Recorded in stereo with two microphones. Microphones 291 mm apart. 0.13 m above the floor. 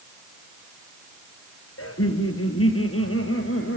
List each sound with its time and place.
1.8 s laughter: 50° left (ahead or behind), 2.5 m; by 3.8 s 45° left (ahead or behind), 4 m